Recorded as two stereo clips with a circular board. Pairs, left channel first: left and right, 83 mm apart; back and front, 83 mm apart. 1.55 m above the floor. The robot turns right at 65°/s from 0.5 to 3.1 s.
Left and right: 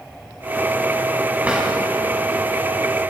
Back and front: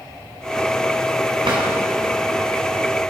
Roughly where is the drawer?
Ahead.